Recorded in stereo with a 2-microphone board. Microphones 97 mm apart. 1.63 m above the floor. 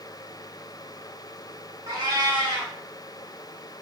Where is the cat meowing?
45° right (ahead or behind), 1.4 m.